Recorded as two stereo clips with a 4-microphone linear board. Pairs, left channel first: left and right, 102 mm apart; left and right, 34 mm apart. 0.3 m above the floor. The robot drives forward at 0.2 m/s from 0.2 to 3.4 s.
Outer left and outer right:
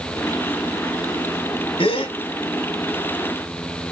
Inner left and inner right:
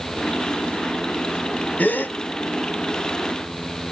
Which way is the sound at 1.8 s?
65° left (ahead or behind).